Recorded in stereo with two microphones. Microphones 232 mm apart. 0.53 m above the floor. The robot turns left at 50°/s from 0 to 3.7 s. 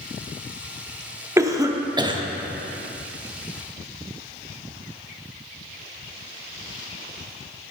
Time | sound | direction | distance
1.4 | a cough | 15° right (ahead or behind) | 0.6 m